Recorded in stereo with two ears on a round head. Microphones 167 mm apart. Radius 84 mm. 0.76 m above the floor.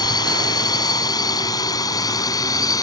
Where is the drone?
25° left (ahead or behind); by 2.8 s 20° left (ahead or behind).